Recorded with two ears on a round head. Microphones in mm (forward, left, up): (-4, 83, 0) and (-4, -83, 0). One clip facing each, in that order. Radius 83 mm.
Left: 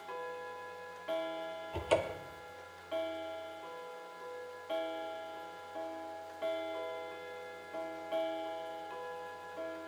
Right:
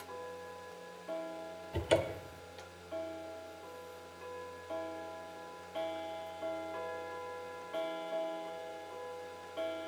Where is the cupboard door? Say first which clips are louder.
Right 1 dB; 15° right (ahead or behind), 0.5 m.